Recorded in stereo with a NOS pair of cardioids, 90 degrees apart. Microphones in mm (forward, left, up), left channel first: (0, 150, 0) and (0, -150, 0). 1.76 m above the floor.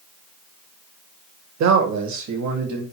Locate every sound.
1.6 s a man speaking: 65° right, 1.1 m; by 2.8 s 70° right, 1.9 m